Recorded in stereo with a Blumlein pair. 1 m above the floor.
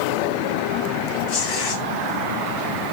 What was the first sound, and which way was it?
Tearing paper, 40° left.